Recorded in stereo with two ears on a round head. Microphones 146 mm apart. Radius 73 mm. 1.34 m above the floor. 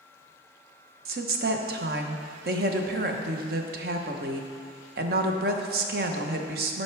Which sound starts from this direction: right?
A woman speaking, at 1.1 s.